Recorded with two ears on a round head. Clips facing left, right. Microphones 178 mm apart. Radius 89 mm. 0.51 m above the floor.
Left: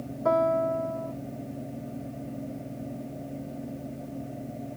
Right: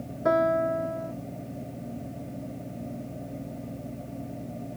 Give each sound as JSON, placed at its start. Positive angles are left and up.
{"t": 0.2, "sound": "a piano", "side_deg": -15}